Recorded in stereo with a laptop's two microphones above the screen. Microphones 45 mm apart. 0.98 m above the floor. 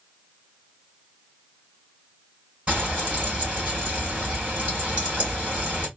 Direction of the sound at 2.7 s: 30° right (ahead or behind).